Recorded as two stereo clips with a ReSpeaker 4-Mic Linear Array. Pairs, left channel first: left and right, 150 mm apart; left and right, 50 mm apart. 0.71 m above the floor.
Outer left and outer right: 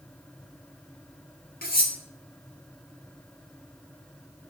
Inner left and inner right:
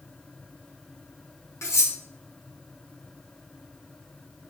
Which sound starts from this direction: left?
Cutlery clinking, at 1.6 s.